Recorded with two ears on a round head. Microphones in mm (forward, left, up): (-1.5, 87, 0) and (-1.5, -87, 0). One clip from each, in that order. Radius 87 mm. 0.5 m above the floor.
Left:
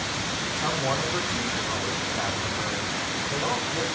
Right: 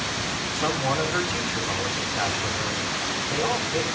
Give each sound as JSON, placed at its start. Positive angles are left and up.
{"t": 0.5, "sound": "a man speaking", "side_deg": -45, "distance_m": 5.0}